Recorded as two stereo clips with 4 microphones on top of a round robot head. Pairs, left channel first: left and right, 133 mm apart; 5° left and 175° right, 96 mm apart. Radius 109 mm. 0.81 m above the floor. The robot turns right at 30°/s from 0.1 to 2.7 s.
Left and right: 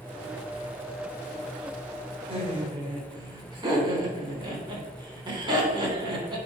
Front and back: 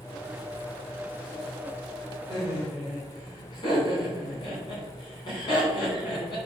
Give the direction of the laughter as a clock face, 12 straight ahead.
2 o'clock.